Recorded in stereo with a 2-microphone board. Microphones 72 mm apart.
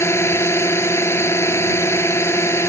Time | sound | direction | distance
0.0 | a drone | 40° left (ahead or behind) | ?